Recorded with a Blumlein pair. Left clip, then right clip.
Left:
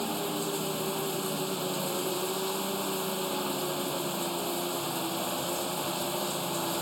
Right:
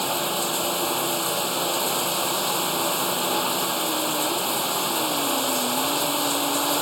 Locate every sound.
0.0 s running water: 25° right